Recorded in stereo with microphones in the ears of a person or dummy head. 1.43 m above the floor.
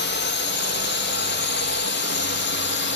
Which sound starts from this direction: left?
A drone, at 0.0 s.